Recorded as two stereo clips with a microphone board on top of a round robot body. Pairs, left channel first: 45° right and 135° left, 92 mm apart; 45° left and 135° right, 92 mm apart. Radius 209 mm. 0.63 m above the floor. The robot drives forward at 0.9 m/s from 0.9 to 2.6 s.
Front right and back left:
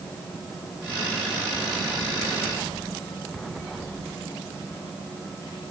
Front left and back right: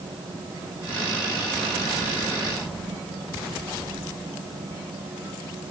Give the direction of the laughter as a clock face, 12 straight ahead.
I don't hear laughter.